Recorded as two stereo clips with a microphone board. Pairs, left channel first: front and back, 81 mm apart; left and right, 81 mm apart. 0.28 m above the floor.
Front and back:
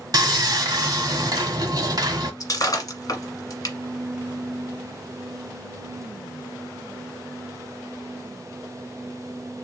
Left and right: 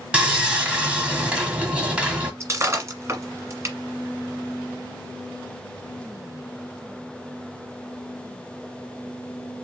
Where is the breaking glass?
40° right, 1.5 m.